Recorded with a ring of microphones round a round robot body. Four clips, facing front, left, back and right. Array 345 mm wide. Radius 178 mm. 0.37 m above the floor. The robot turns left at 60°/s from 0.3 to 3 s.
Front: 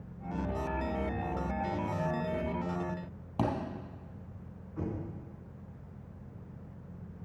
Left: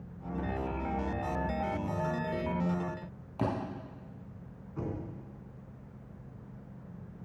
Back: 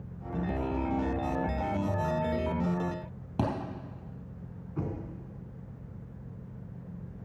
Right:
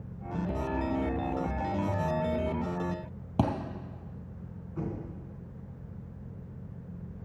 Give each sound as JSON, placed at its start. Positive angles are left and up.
{"t": 3.4, "sound": "a thud", "azimuth_deg": -115, "distance_m": 3.0}
{"t": 4.8, "sound": "knocking", "azimuth_deg": -175, "distance_m": 3.5}